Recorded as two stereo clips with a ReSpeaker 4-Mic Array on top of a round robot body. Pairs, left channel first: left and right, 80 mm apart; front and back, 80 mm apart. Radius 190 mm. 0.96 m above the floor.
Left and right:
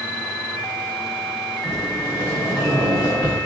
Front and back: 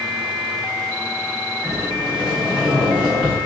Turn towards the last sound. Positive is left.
turn(degrees=110)